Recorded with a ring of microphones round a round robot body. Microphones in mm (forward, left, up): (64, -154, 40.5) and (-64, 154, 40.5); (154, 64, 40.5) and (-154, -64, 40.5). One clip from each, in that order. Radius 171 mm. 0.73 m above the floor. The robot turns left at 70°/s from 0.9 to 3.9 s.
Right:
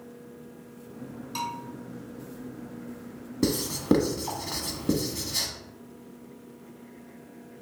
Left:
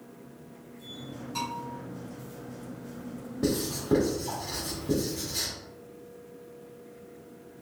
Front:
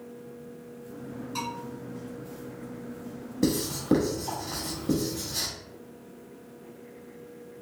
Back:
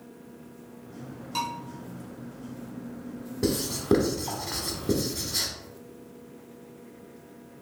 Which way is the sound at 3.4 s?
45° right.